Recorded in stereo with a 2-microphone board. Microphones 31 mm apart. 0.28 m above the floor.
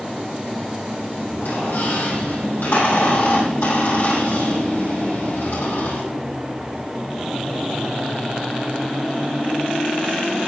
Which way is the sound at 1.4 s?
70° left (ahead or behind).